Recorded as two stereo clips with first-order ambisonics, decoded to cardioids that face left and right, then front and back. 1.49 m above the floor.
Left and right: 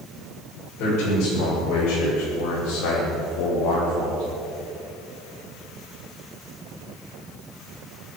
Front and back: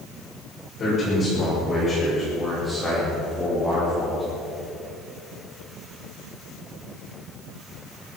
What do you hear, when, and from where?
0.8 s a man speaking: 60° left, 6.5 m; by 4.2 s 90° left, 4.5 m